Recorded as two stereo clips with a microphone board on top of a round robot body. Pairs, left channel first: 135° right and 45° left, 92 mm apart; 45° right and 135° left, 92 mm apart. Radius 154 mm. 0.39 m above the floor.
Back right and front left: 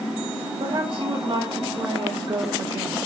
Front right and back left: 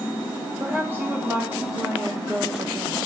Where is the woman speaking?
70° left, 2.5 m.